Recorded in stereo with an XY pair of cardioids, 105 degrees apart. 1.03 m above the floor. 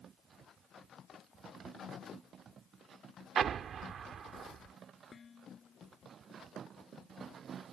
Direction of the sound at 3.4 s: 55° right.